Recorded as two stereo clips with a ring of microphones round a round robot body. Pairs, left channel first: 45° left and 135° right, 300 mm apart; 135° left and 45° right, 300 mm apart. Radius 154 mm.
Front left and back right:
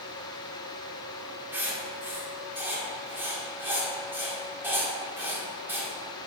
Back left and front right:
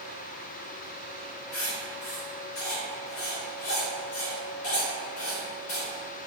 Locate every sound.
1.5 s writing: 145° left, 1.8 m